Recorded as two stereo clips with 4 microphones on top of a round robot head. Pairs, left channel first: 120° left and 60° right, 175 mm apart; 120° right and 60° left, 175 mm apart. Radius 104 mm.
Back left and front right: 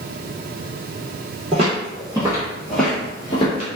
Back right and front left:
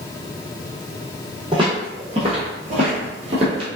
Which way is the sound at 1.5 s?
5° right.